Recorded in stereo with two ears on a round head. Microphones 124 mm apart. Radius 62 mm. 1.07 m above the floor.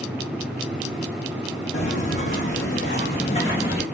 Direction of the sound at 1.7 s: 55° left (ahead or behind).